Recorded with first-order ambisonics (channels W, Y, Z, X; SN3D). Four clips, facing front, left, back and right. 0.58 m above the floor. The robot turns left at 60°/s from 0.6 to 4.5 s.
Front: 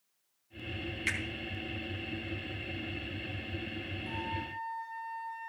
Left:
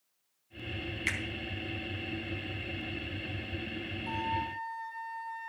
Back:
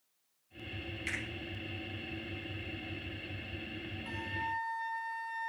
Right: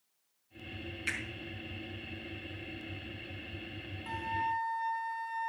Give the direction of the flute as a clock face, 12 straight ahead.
4 o'clock.